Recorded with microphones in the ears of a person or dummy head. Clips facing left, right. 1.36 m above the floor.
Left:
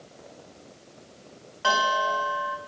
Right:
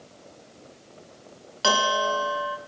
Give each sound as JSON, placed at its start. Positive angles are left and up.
{"t": 1.6, "sound": "a bell", "side_deg": -35, "distance_m": 0.9}